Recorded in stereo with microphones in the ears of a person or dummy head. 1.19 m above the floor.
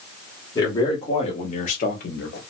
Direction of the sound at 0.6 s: 20° left (ahead or behind).